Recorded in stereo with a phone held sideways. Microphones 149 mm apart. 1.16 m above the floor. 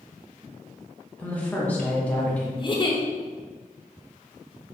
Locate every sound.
1.2 s a woman speaking: 10° left (ahead or behind), 1.2 m
2.6 s a giggle: 30° left (ahead or behind), 0.7 m